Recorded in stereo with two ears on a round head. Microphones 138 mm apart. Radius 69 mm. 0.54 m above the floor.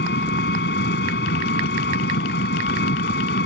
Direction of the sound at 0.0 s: 75° left (ahead or behind).